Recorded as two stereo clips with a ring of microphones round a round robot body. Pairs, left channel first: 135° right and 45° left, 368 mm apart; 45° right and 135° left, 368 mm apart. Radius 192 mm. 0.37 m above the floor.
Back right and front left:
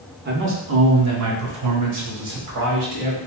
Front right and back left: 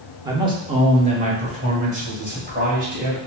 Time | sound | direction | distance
0.2 | a man speaking | 65° left | 1.0 m